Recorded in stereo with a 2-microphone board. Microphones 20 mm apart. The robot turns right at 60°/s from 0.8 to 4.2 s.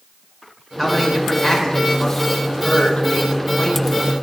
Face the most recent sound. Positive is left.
turn(degrees=-165)